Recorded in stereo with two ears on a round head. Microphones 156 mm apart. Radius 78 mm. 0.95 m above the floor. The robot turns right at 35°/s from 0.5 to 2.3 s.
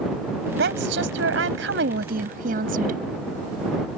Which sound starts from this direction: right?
A woman speaking, at 0.6 s.